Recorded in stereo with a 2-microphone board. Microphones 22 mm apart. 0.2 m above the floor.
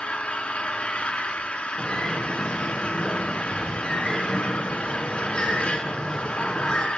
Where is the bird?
30° left (ahead or behind), 4 m.